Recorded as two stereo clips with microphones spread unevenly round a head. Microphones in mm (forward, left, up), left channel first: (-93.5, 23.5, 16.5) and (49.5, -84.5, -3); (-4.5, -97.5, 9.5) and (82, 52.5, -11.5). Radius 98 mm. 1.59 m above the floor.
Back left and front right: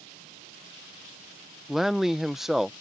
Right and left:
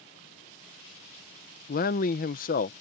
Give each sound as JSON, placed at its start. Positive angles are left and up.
{"t": 1.7, "sound": "a man speaking", "azimuth_deg": -130}